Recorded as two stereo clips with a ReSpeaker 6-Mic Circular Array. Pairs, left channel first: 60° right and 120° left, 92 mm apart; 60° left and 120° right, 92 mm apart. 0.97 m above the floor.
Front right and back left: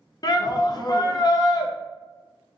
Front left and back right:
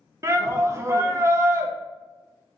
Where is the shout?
75° right, 0.5 m.